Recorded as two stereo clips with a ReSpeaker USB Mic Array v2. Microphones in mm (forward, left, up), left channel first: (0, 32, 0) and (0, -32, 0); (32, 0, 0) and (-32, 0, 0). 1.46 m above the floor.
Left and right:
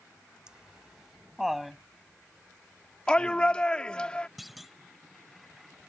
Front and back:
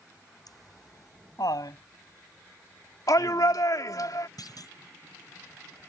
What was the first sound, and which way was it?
Laughter, 10° right.